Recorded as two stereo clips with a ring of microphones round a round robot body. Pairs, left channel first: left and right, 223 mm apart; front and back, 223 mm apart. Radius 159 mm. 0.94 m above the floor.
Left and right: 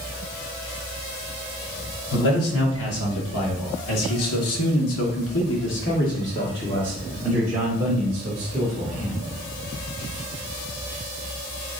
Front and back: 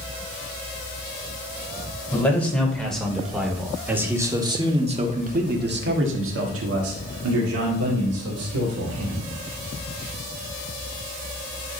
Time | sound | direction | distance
2.1 | a man speaking | 80° left | 3.5 m